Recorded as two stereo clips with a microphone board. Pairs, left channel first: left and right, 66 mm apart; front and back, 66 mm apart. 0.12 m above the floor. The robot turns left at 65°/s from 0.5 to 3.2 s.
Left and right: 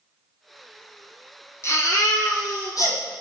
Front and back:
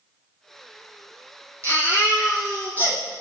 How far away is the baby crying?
About 1.9 m.